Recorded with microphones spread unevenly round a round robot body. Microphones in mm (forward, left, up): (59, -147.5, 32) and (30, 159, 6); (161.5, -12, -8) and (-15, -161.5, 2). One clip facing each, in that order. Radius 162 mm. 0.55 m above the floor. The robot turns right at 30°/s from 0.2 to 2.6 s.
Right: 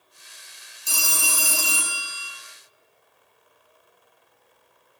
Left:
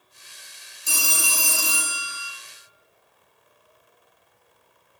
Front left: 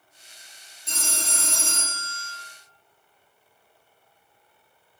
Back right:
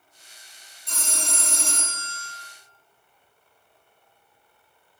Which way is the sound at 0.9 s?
110° left.